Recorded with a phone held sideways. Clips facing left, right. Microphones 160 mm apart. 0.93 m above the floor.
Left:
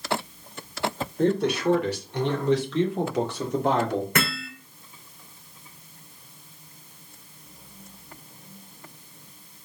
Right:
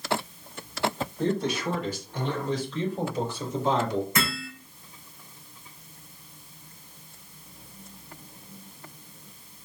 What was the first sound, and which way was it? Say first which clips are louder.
A man speaking: left 5 dB; 60° left (ahead or behind).